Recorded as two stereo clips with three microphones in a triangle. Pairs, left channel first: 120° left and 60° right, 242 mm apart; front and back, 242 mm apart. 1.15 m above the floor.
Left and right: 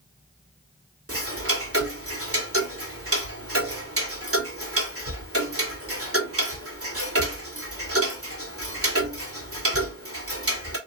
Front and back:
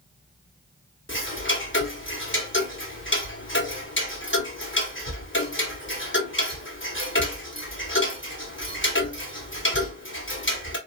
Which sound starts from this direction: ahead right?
Ticking, at 1.1 s.